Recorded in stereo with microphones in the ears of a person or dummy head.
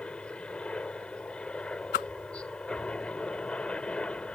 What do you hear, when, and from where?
0.0 s a helicopter: 10° left (ahead or behind)
1.9 s a whoosh: 50° left (ahead or behind)